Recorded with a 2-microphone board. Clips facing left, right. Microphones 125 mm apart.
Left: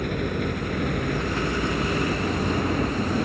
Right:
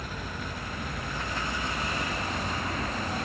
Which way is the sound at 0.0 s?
65° left (ahead or behind).